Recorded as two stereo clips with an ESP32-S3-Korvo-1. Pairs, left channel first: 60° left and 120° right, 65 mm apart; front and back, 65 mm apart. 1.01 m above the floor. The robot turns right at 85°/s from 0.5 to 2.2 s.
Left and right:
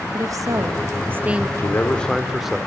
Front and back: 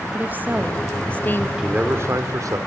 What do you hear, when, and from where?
0.1 s a woman speaking: 120° right, 1.3 m; by 1.5 s 40° right, 1.3 m
1.6 s a man speaking: 100° left, 2.5 m; by 2.6 s 155° left, 2.5 m